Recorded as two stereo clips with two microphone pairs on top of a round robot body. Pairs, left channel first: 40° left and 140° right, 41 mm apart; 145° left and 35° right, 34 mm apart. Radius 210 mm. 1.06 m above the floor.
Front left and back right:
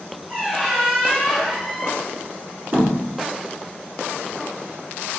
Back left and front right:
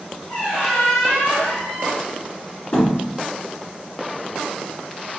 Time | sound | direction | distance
0.3 | a squeak | 130° left | 0.9 m
2.7 | a thud | 170° right | 1.6 m